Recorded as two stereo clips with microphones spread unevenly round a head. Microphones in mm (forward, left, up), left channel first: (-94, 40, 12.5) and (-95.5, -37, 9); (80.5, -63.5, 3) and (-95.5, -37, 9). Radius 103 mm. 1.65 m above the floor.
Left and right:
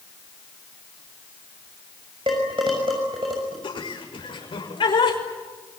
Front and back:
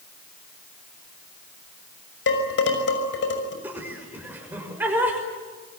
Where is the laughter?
90° left, 6 m.